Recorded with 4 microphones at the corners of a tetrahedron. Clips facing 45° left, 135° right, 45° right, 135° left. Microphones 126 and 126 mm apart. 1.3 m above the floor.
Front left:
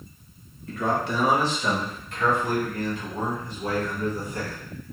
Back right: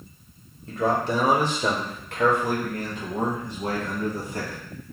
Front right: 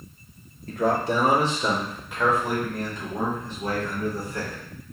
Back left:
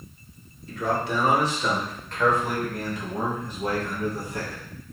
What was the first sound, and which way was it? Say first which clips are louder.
A man speaking: back right 2 dB, front right 3 dB; 75° right.